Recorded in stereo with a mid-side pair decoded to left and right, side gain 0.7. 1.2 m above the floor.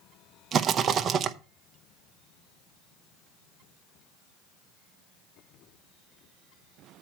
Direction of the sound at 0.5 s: 35° right.